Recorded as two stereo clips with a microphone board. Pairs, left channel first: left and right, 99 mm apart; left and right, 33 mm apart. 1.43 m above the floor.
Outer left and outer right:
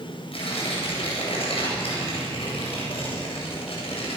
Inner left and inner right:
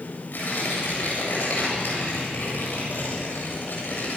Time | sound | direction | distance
0.3 | tearing paper | 75° left (ahead or behind) | 8 m